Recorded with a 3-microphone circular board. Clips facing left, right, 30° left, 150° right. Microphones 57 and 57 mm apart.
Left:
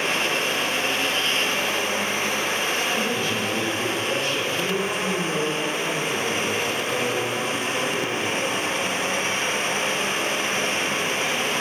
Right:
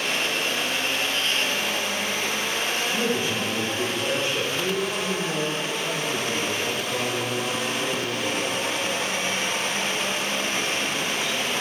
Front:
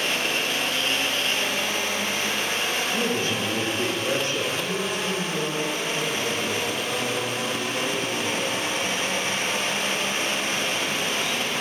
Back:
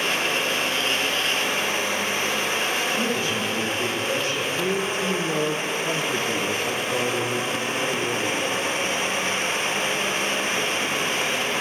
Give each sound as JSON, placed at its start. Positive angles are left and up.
{"t": 2.9, "sound": "a man speaking", "azimuth_deg": -15, "distance_m": 4.0}
{"t": 4.6, "sound": "a man speaking", "azimuth_deg": 180, "distance_m": 2.5}